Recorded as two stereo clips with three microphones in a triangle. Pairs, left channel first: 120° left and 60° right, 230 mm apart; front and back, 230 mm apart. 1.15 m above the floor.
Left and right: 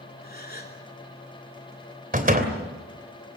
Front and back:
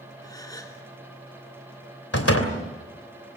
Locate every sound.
0.2 s a gasp: 75° left, 3 m
2.1 s a door slam: 5° right, 3 m